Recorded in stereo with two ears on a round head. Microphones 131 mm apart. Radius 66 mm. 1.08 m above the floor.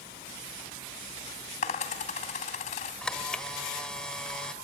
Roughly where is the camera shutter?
Centre.